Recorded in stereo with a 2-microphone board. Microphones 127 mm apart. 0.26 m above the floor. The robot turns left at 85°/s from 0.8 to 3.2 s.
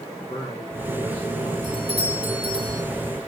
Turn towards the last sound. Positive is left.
turn(degrees=-175)